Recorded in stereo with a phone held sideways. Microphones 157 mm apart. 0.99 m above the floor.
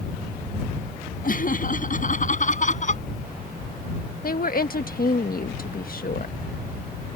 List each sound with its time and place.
1.2 s laughter: 55° left (ahead or behind); by 3.0 s 45° left (ahead or behind)
4.2 s a woman speaking: 60° left (ahead or behind)